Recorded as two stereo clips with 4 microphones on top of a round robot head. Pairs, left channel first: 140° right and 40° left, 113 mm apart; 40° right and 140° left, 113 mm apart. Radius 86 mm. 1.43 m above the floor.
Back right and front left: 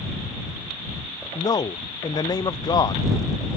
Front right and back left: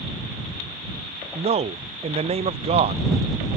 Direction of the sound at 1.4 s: 165° left.